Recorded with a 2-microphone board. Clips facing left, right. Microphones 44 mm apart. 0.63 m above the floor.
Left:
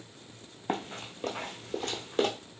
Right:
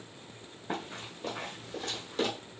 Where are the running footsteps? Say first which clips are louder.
Left 3 dB; 60° left (ahead or behind), 1.2 m; by 2.3 s 45° left (ahead or behind), 1.1 m.